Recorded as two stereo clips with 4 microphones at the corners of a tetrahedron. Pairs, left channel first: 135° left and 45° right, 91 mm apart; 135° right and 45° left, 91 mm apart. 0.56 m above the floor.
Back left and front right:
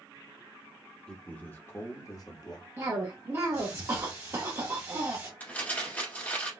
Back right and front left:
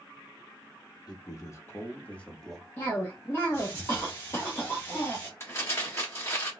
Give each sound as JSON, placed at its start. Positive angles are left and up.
{"t": 1.1, "sound": "a man speaking", "azimuth_deg": -150, "distance_m": 1.0}
{"t": 2.8, "sound": "a cough", "azimuth_deg": -85, "distance_m": 1.0}
{"t": 5.4, "sound": "crumpling", "azimuth_deg": -170, "distance_m": 1.3}